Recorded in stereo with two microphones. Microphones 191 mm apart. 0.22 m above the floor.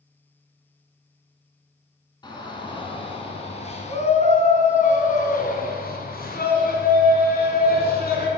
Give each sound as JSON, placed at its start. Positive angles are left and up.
{"t": 2.2, "sound": "a shout", "side_deg": 20, "distance_m": 3.0}